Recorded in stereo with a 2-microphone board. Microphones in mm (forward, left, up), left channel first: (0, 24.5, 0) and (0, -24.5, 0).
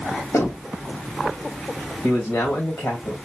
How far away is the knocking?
About 2.5 m.